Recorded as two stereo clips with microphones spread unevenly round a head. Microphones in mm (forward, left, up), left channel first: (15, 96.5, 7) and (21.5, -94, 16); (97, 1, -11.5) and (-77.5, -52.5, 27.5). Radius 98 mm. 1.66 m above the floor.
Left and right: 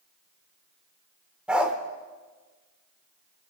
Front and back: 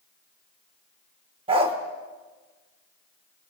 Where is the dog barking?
165° right, 1.5 m.